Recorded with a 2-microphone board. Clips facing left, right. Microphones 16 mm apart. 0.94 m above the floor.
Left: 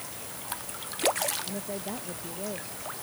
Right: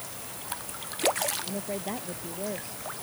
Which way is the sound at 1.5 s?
30° right (ahead or behind).